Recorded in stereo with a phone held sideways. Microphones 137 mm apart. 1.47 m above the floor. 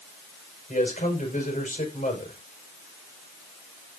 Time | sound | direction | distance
0.7 | a man speaking | 75° left (ahead or behind) | 5 m